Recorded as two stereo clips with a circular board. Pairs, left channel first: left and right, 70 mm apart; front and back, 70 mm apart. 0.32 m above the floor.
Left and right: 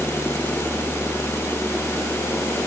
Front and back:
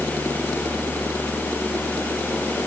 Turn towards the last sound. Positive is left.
No sound to turn to.